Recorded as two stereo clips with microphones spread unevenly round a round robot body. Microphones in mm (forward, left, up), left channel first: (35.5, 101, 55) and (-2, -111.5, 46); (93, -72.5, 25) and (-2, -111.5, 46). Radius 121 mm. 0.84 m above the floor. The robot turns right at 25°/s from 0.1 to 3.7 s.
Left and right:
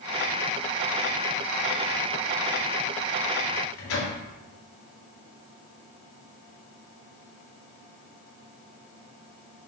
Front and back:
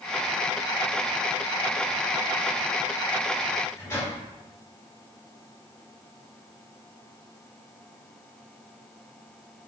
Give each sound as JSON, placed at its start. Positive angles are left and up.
{"t": 3.5, "sound": "a microwave", "azimuth_deg": 90, "distance_m": 1.9}